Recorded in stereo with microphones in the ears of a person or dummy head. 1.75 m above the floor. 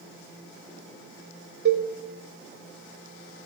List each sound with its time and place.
1.6 s a cowbell: 60° right (ahead or behind), 2.5 m